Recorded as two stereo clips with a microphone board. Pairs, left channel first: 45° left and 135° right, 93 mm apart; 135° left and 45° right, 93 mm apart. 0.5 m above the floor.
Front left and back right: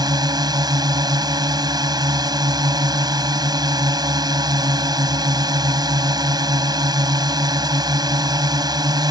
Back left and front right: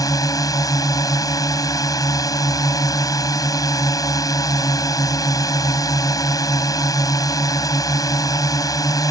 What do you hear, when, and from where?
0.0 s a drone: 175° right